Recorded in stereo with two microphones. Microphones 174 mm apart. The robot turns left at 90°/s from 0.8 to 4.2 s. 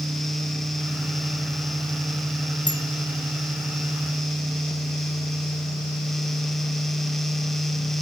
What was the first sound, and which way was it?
A bicycle bell, 25° left (ahead or behind).